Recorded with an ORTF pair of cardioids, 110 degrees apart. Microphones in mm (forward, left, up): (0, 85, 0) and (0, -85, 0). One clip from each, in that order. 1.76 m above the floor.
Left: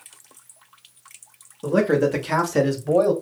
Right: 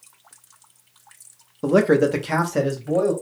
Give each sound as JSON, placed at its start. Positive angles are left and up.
{"t": 1.6, "sound": "a man speaking", "azimuth_deg": -35, "distance_m": 0.8}